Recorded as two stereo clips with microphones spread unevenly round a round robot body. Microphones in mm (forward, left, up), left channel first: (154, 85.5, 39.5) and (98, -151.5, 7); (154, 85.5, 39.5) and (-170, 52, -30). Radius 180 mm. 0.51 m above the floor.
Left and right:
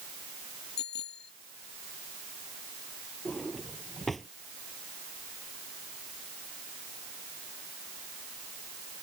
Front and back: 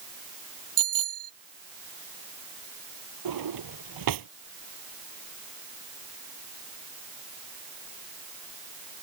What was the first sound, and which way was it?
A bicycle bell, 140° left.